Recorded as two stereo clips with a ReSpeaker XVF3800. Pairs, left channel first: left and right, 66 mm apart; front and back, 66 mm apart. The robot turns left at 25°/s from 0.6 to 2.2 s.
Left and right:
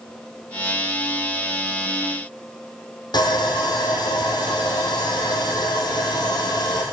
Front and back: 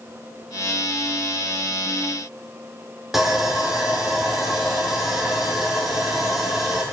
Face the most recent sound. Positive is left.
turn(degrees=95)